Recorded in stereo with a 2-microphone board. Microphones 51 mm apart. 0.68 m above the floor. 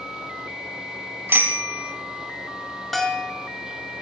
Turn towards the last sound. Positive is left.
turn(degrees=5)  # may be behind; listen again after turning